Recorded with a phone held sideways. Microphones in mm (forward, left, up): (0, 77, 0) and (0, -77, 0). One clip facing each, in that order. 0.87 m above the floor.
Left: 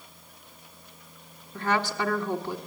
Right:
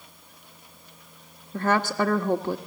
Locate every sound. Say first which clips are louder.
1.5 s a woman speaking: right 4 dB; 45° right (ahead or behind), 1.4 m